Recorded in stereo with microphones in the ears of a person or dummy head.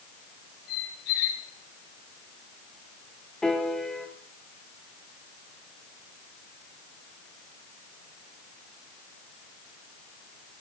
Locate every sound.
0.7 s a squeak: 50° left (ahead or behind), 2 m
3.4 s a piano: centre (ahead or behind), 1.1 m